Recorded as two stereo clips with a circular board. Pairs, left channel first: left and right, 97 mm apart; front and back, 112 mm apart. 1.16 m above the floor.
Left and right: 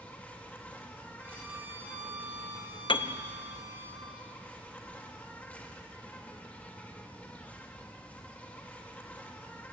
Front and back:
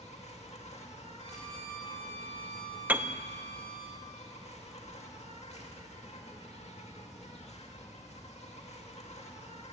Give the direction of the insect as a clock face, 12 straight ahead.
12 o'clock.